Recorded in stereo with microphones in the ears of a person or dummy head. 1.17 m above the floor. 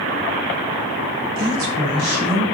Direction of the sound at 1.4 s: 55° right (ahead or behind).